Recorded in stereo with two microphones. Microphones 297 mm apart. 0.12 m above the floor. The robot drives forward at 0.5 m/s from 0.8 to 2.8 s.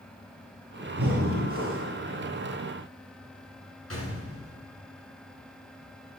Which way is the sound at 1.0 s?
50° right (ahead or behind).